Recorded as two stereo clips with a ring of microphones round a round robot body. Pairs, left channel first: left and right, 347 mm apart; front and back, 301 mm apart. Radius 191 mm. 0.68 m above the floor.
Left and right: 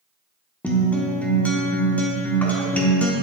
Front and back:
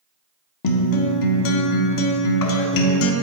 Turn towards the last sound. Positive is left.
turn(degrees=5)